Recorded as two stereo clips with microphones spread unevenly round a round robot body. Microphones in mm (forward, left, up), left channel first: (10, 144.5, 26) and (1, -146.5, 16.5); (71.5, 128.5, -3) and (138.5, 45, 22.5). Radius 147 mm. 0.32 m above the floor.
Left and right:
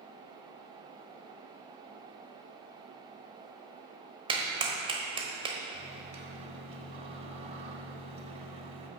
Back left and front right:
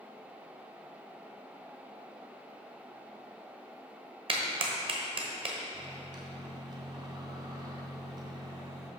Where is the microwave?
60° right, 1.0 m.